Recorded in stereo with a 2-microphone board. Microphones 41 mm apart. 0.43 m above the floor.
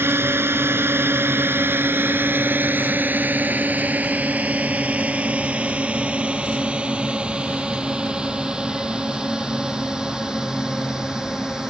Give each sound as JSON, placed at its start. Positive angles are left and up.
{"t": 0.0, "sound": "a drone", "side_deg": -80}